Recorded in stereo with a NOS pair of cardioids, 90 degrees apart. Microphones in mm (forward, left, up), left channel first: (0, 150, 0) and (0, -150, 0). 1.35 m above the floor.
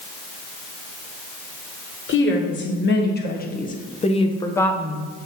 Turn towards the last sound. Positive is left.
turn(degrees=-10)